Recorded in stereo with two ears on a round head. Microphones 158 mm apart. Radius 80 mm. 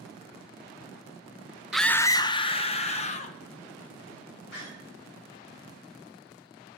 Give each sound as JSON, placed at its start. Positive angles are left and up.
{"t": 1.7, "sound": "a scream", "side_deg": 0, "distance_m": 0.5}
{"t": 4.5, "sound": "a door slam", "side_deg": 70, "distance_m": 7.5}